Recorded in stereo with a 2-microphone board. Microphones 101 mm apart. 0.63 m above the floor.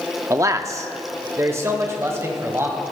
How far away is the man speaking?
About 0.7 m.